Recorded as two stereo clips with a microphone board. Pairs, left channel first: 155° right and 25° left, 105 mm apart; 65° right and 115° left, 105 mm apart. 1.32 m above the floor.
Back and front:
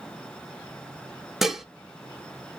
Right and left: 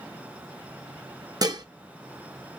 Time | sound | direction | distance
1.4 | dishes clattering | 110° left | 0.6 m